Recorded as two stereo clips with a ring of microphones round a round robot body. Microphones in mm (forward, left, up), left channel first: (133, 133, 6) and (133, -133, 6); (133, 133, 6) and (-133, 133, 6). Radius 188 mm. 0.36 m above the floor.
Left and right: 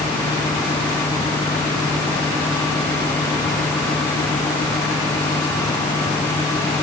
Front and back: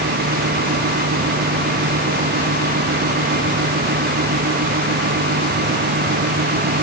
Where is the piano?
I don't hear a piano.